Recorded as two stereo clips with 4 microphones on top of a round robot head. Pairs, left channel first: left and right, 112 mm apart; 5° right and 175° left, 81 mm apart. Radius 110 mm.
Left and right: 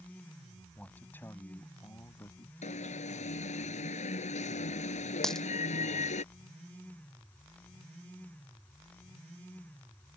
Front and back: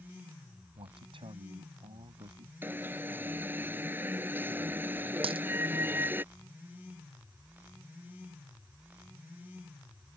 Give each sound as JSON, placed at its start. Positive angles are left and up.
{"t": 0.8, "sound": "a man speaking", "azimuth_deg": 170}
{"t": 2.6, "sound": "an alarm", "azimuth_deg": 110}
{"t": 5.2, "sound": "a dropped coin", "azimuth_deg": 175}